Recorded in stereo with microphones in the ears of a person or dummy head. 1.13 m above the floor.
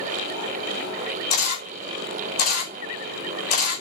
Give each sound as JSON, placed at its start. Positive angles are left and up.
{"t": 1.3, "sound": "a camera shutter", "side_deg": 45, "distance_m": 3.5}